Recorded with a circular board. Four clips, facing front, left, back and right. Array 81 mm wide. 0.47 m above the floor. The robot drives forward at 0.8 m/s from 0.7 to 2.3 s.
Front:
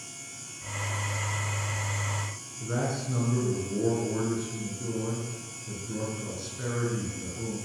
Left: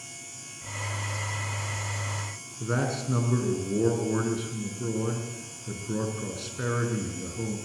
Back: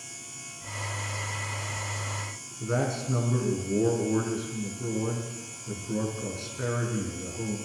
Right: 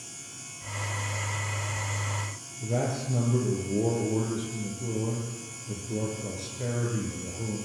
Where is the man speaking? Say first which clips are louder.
Left 1 dB, back 2 dB; 105° left, 5.5 m.